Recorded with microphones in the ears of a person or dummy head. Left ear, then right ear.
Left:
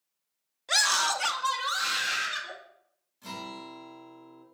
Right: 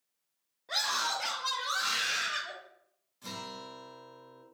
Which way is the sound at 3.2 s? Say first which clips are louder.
Left 2 dB; centre (ahead or behind).